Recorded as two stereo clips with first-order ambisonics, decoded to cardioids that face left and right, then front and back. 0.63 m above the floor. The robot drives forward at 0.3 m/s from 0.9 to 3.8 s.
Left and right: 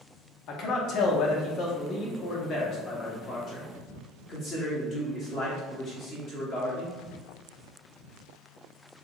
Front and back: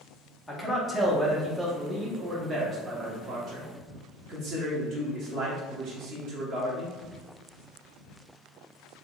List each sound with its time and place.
0.5 s a man speaking: 80° left, 0.9 m; by 6.9 s 140° left, 1.2 m